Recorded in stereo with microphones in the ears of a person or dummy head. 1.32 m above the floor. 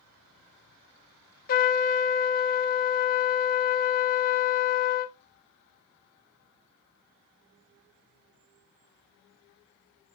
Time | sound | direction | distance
1.5 | a trumpet | 40° left (ahead or behind) | 0.5 m